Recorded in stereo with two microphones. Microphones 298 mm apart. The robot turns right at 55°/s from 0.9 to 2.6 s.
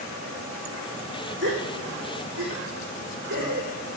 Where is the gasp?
40° right (ahead or behind), 4 m; by 3.7 s 75° right (ahead or behind), 4 m.